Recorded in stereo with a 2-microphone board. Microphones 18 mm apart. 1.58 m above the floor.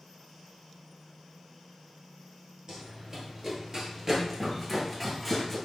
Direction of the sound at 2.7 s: 40° right (ahead or behind).